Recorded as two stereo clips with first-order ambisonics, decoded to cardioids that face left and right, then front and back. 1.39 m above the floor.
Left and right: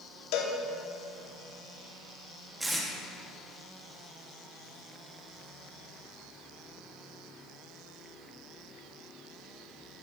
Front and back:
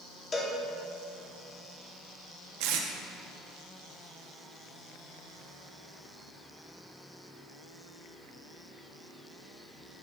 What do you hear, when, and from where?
0.3 s a cowbell: 75° left, 1.1 m
2.6 s tape being pulled: 175° right, 1.0 m